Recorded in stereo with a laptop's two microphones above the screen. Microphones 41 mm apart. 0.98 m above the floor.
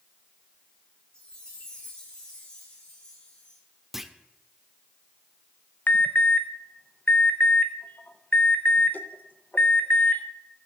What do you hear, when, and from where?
1.1 s a chime: 20° left (ahead or behind), 3.5 m
3.9 s a clunk: 5° right (ahead or behind), 0.6 m
5.9 s an alarm: 50° left (ahead or behind), 0.8 m